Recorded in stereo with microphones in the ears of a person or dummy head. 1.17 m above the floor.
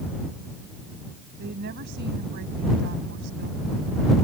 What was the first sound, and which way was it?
A woman speaking, 65° right (ahead or behind).